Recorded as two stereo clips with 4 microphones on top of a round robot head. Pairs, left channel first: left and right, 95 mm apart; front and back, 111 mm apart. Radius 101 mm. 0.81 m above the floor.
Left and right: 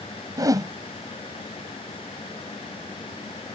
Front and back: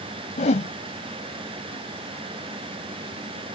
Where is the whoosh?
35° right.